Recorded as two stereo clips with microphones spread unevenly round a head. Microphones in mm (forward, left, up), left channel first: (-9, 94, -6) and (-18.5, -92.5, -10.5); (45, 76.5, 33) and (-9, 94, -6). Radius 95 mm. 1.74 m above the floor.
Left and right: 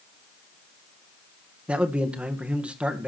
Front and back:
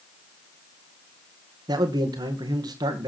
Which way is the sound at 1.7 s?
175° right.